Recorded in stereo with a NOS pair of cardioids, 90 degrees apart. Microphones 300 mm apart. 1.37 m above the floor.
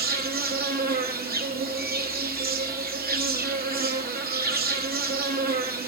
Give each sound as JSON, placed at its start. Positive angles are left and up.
{"t": 0.0, "sound": "an insect", "azimuth_deg": -30, "distance_m": 1.3}